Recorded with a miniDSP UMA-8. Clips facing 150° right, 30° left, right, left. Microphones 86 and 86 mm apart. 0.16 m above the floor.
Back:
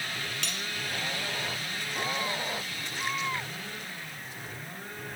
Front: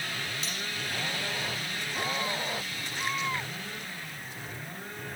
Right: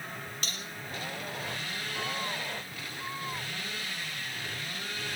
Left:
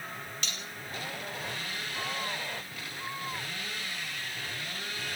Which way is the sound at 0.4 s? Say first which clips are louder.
Even, even; 140° right.